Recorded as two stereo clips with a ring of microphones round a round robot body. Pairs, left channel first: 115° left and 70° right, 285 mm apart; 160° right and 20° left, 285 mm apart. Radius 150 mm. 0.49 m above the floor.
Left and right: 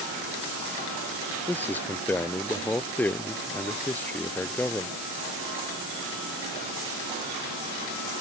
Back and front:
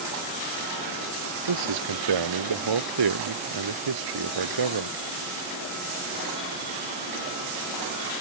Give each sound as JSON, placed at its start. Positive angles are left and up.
{"t": 1.5, "sound": "a man speaking", "azimuth_deg": 30}